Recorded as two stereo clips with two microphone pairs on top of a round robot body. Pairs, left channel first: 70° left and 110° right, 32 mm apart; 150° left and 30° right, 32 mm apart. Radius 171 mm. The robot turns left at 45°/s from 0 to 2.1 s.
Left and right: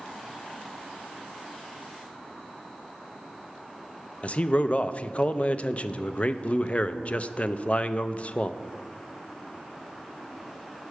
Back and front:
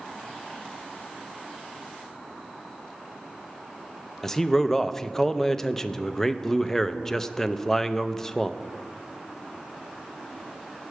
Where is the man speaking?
85° left, 0.5 m.